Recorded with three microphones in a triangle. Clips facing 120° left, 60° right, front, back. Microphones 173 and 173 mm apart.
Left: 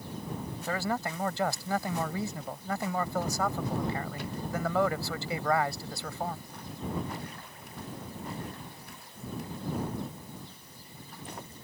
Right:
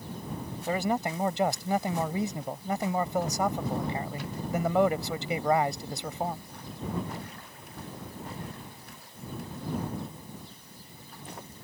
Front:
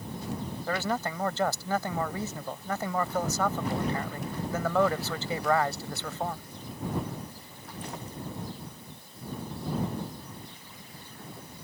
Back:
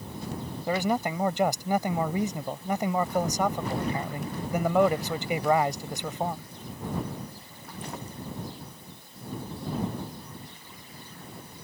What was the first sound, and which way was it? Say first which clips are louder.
A man speaking: right 4 dB, back 4 dB; 115° right.